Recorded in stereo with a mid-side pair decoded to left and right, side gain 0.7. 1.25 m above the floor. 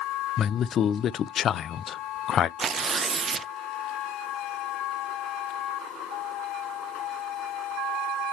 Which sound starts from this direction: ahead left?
A man speaking, at 0.4 s.